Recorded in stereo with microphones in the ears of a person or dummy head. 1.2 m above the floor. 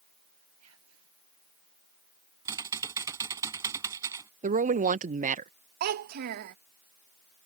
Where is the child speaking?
45° right (ahead or behind).